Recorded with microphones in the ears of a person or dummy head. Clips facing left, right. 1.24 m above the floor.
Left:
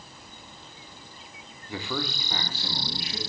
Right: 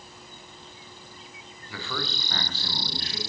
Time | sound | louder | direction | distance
1.7 | a man speaking | left 3 dB | 15° left (ahead or behind) | 0.5 m